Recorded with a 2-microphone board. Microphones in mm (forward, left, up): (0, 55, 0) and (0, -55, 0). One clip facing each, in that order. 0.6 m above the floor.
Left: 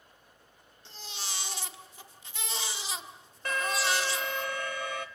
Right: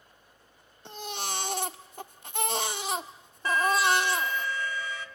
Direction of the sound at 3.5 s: 55° left (ahead or behind).